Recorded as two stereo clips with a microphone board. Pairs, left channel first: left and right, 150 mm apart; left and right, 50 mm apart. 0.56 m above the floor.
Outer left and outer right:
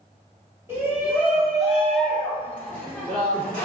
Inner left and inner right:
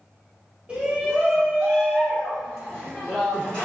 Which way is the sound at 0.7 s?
15° right (ahead or behind).